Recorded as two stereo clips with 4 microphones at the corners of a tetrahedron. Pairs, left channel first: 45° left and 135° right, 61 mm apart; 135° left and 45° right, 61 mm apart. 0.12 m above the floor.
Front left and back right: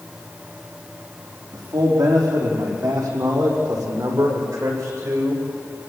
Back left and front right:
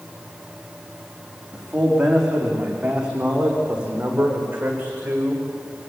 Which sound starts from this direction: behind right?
A man speaking, at 1.5 s.